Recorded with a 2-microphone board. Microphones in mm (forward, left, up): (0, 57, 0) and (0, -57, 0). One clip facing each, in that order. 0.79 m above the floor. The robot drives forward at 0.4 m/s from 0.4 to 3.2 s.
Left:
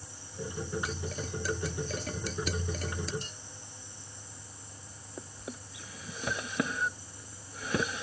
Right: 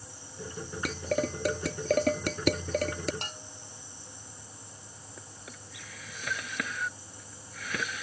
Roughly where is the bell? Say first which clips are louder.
Right 5 dB; right.